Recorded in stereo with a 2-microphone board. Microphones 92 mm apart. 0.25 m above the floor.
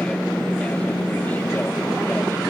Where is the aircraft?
10° left (ahead or behind); by 2.5 s 25° left (ahead or behind).